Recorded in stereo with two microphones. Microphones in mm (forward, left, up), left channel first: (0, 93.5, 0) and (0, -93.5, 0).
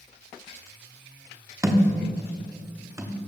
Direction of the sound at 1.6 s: 15° right (ahead or behind).